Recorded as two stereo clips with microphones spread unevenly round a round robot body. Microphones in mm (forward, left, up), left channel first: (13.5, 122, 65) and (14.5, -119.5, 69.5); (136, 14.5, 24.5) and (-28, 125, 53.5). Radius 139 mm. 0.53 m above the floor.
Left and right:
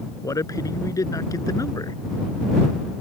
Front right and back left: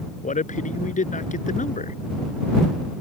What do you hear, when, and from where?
0.2 s a man speaking: 15° left